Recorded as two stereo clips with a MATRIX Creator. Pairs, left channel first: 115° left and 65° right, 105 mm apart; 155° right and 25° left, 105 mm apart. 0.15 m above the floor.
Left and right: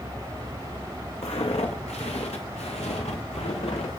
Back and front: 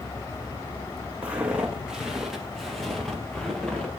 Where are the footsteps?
100° left, 3 m; by 3.9 s 120° left, 4 m.